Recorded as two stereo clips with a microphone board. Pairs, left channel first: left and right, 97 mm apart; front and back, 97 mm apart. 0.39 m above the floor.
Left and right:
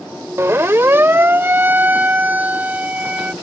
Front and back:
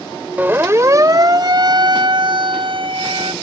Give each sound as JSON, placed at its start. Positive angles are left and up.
{"t": 0.4, "sound": "a siren", "azimuth_deg": -125}